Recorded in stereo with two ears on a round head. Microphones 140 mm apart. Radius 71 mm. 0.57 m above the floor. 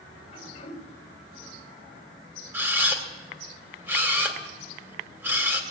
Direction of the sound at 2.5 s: 15° right (ahead or behind).